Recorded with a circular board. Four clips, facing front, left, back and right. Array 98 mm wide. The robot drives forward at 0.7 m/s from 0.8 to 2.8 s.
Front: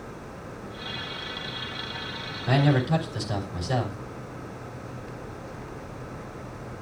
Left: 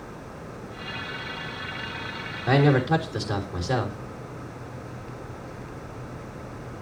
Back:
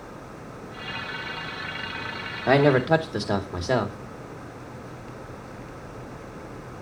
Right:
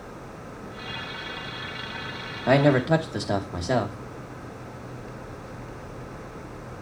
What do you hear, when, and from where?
2.5 s a man speaking: 145° right, 2.5 m